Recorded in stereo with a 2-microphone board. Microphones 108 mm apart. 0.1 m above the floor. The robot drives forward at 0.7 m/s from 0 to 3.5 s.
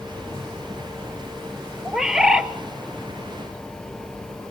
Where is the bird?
5° right (ahead or behind), 1.1 m; by 2.5 s 10° right (ahead or behind), 0.7 m.